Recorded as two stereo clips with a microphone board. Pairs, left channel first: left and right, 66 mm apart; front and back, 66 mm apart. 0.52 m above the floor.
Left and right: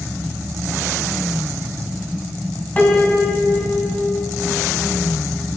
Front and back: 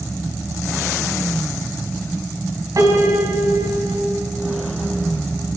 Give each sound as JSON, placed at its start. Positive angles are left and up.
{"t": 2.8, "sound": "a piano", "azimuth_deg": 155, "distance_m": 4.5}